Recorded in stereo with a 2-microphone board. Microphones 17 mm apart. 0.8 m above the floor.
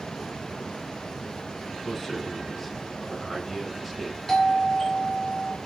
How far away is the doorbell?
About 1.9 m.